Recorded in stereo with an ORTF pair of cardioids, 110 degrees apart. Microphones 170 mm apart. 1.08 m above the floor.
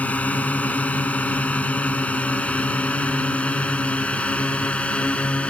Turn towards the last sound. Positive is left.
turn(degrees=5)